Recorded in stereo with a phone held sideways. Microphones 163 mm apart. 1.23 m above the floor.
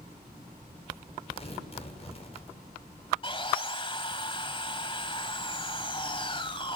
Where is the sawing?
30° left (ahead or behind), 1.7 m.